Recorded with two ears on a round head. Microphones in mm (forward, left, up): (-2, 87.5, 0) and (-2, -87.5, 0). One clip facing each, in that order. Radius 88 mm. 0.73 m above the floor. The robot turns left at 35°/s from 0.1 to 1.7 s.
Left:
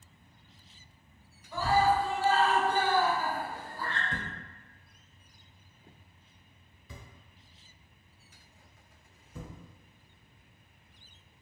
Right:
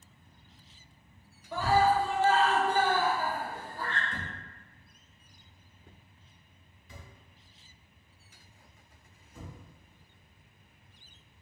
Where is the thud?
70° left (ahead or behind), 1.0 m.